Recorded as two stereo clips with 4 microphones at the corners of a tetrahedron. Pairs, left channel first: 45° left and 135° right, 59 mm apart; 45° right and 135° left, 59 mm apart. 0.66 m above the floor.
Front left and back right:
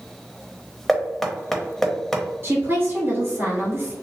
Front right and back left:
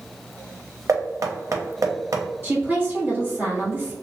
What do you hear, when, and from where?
0.9 s knocking: 130° left, 0.6 m
2.4 s a woman speaking: 175° right, 1.8 m